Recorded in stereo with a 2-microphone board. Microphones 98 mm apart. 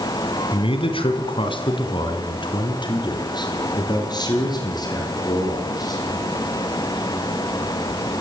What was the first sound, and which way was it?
A man speaking, 60° left (ahead or behind).